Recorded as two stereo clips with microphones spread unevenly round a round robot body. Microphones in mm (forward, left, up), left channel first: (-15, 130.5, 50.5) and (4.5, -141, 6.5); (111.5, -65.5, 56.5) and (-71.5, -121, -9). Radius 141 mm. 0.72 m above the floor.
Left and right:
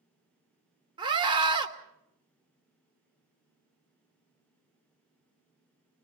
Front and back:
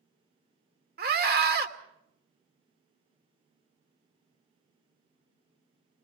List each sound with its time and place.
1.0 s a scream: 155° right, 2.5 m